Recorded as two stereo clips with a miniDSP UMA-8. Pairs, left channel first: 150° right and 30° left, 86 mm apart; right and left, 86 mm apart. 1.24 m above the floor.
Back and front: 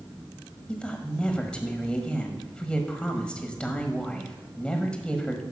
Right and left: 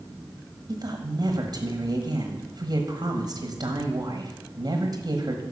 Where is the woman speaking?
130° left, 1.1 m.